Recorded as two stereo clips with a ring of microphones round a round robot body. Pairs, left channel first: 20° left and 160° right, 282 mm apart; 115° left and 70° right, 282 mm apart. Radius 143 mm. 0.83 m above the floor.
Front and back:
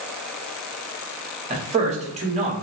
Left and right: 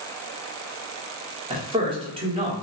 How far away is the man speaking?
About 0.8 m.